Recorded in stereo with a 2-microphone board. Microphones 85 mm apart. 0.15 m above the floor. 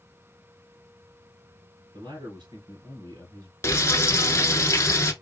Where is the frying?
35° left (ahead or behind), 0.8 m.